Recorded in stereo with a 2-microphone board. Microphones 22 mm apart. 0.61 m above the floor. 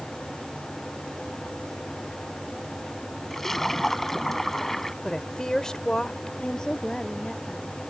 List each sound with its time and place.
3.3 s a splash: 15° left (ahead or behind)
5.0 s a woman speaking: 30° left (ahead or behind)
6.4 s a woman speaking: 30° left (ahead or behind)